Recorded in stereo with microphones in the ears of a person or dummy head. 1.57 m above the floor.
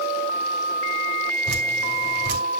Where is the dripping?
65° right (ahead or behind), 3.5 m.